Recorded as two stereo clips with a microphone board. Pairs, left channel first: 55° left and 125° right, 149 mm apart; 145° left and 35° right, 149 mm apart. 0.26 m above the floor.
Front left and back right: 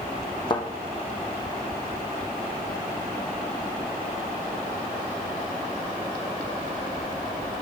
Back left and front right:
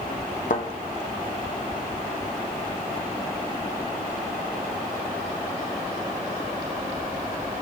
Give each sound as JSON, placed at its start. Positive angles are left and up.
{"t": 0.5, "sound": "a thud", "azimuth_deg": 115, "distance_m": 1.9}